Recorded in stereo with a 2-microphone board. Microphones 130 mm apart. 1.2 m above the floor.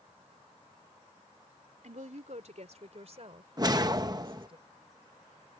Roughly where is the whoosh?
Right.